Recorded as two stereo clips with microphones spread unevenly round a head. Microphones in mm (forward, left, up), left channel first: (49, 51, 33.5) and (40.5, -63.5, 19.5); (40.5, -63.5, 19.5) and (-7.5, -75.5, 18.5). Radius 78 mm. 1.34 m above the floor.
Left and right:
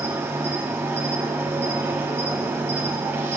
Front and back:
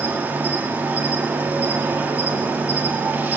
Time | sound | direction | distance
0.0 | an insect | 165° right | 0.9 m